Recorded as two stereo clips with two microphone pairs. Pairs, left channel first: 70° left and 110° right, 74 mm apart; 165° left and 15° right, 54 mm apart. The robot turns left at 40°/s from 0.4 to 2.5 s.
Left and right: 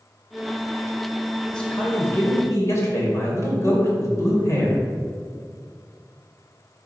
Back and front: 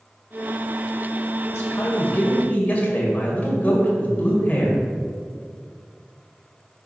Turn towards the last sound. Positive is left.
turn(degrees=110)